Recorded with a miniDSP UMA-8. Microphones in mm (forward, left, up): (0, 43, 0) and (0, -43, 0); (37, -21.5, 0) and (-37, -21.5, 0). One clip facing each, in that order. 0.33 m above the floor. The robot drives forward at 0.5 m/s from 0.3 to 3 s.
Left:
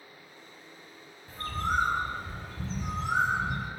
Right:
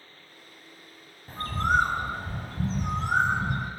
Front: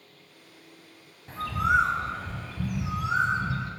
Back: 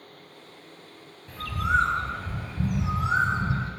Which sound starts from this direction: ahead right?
A bird, at 1.3 s.